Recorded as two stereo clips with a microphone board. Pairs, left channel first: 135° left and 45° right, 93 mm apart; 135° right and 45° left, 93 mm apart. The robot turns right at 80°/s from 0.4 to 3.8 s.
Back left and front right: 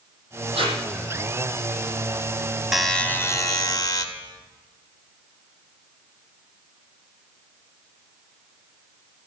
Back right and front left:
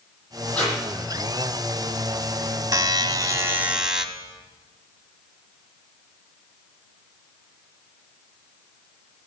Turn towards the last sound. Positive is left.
turn(degrees=125)